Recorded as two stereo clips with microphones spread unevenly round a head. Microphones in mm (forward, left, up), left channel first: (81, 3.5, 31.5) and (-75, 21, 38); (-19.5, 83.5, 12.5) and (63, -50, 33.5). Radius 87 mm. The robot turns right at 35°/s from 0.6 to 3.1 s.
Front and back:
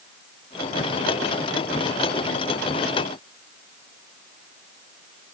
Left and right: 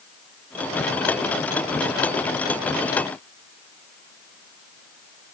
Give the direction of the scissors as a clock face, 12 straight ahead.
No scissors in this recording.